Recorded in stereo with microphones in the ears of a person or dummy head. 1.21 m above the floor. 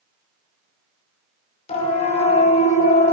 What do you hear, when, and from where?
1.7 s a siren: 35° left (ahead or behind), 5.5 m; by 3.1 s 45° left (ahead or behind), 7 m